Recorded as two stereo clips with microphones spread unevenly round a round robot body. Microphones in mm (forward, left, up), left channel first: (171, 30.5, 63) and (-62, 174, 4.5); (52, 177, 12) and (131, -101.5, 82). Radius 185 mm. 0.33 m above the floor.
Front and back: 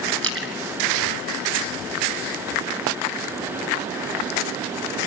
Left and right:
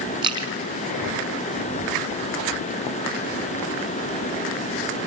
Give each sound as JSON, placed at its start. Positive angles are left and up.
{"t": 0.2, "sound": "a splash", "azimuth_deg": -150, "distance_m": 1.0}